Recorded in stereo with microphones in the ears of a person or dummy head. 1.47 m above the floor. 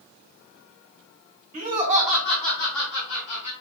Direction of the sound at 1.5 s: 45° right (ahead or behind).